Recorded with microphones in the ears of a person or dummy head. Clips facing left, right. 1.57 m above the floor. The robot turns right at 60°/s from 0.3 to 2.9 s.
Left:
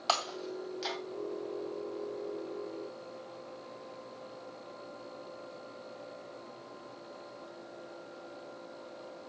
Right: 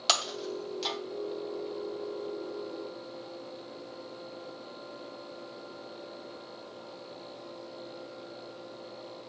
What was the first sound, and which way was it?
Breaking glass, 15° right (ahead or behind).